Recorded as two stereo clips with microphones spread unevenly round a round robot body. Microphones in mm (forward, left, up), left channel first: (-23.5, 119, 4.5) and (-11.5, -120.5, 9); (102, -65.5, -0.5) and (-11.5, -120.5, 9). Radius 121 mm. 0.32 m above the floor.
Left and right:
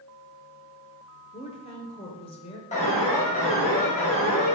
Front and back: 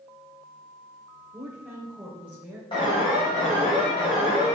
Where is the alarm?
50° left, 2.5 m.